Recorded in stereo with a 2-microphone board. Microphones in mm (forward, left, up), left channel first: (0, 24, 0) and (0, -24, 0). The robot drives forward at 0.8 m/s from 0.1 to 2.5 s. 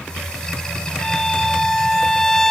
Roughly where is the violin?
Centre.